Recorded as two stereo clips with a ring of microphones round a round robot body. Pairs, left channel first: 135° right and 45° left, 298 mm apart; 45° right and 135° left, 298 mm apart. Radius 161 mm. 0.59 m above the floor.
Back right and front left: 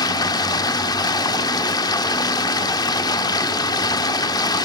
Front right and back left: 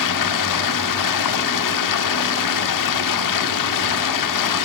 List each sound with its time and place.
0.0 s running water: 60° right, 1.0 m